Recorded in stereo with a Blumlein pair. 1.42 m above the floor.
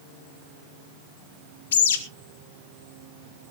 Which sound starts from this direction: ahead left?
A bird, at 1.7 s.